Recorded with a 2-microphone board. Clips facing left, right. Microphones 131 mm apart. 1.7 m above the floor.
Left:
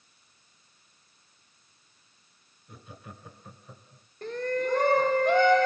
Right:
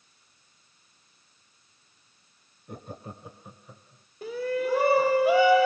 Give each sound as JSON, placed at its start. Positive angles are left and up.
{"t": 2.7, "sound": "laughter", "side_deg": -55, "distance_m": 0.8}
{"t": 4.2, "sound": "a shout", "side_deg": -5, "distance_m": 0.8}